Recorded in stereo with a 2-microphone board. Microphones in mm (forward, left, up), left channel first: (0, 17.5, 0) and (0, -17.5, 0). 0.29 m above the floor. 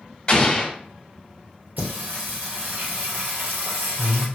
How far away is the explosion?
About 0.8 m.